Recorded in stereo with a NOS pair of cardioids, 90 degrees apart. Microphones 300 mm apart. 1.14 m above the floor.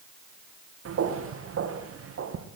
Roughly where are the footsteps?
Ahead right.